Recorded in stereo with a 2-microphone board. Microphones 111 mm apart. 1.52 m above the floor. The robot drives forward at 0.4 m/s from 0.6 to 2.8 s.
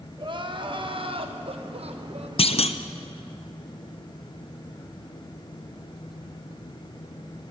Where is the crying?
50° right (ahead or behind), 1.2 m; by 2.3 s 65° right (ahead or behind), 1.0 m.